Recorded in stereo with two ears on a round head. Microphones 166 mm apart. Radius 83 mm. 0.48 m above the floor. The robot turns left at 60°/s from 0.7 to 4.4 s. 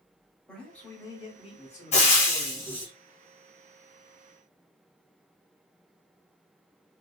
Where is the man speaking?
170° left, 1.0 m; by 2.9 s 40° left, 1.0 m.